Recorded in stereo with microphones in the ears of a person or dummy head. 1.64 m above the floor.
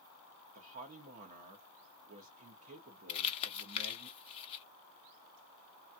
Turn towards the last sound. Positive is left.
turn(degrees=35)  # may be behind; listen again after turning